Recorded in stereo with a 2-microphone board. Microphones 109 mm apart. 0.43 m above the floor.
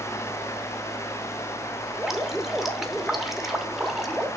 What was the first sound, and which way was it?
Dripping, 5° right (ahead or behind).